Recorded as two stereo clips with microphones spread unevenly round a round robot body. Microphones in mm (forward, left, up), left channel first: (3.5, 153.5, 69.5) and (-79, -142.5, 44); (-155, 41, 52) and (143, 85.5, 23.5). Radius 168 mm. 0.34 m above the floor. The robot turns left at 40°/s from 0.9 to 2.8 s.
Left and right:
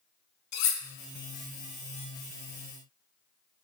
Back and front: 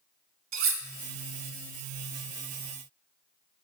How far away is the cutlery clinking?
About 1.0 m.